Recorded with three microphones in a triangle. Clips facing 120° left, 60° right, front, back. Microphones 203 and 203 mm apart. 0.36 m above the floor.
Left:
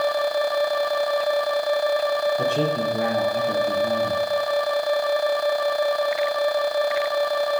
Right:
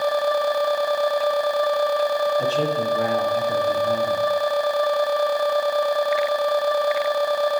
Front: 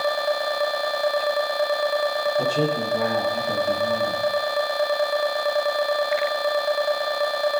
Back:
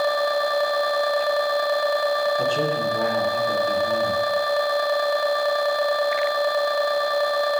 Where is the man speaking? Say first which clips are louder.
Right 1 dB, even; 80° left, 7 m.